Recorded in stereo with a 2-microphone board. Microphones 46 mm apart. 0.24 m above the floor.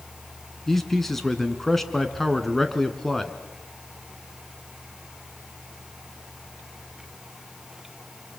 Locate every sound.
0.7 s a man speaking: 5° left (ahead or behind), 2.5 m